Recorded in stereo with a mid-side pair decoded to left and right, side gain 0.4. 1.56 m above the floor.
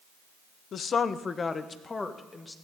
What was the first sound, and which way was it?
A woman speaking, 60° left.